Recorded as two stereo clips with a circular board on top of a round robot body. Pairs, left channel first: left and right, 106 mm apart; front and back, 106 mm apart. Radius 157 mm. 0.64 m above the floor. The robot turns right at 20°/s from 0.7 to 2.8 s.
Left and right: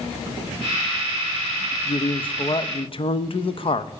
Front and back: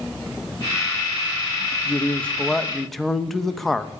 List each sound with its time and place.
1.9 s a man speaking: 70° left, 1.0 m; by 3.9 s 90° left, 1.0 m